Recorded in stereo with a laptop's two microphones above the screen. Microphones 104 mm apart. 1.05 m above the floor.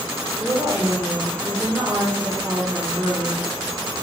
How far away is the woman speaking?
About 3 m.